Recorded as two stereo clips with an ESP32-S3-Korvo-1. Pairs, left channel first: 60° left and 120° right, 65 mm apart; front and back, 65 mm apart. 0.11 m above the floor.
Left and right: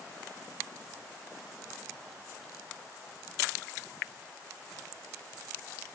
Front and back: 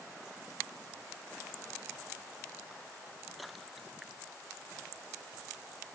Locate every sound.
Only background noise.